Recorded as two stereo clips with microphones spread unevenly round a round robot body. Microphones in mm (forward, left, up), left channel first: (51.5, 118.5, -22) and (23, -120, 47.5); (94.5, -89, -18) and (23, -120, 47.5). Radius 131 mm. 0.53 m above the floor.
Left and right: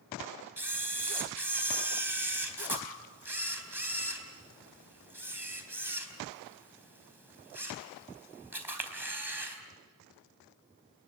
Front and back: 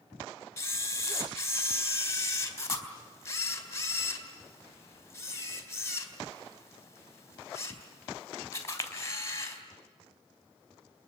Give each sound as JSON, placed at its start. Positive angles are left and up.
{"t": 0.6, "sound": "a camera shutter", "azimuth_deg": -10, "distance_m": 3.5}